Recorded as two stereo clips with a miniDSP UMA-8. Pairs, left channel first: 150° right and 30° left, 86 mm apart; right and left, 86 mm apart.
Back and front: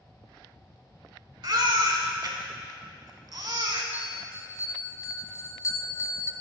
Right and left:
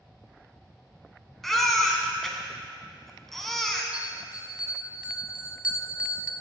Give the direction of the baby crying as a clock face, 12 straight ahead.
12 o'clock.